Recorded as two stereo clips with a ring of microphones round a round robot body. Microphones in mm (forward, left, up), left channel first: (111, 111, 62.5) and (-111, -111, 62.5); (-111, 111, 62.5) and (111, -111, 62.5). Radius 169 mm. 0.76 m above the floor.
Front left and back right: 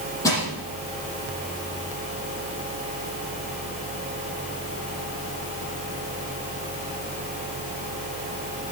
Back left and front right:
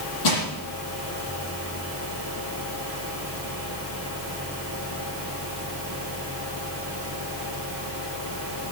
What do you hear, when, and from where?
0.2 s crushing: 125° left, 6.5 m